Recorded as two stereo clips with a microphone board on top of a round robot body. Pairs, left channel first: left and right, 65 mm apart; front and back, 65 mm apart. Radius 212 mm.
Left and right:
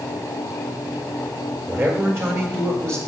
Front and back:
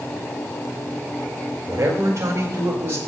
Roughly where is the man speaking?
Behind right.